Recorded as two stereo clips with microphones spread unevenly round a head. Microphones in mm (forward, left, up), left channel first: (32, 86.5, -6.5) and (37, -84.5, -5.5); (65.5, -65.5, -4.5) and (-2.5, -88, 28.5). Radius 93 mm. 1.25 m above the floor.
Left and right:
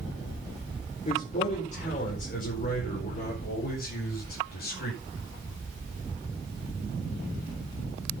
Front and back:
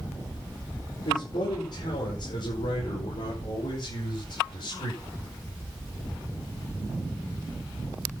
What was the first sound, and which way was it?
A man speaking, 40° left.